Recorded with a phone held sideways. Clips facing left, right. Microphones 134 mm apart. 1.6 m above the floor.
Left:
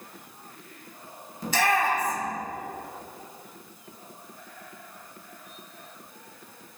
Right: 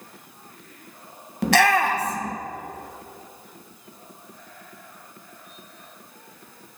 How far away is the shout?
About 1.2 m.